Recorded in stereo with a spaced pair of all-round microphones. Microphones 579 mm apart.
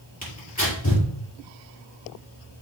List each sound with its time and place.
0.2 s tearing paper: 30° left (ahead or behind), 5.5 m